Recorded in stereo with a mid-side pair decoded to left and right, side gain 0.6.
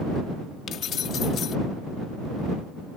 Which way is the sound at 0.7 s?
50° left.